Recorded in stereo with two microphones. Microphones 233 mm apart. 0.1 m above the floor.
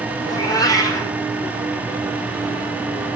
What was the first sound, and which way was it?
A cat meowing, 15° left (ahead or behind).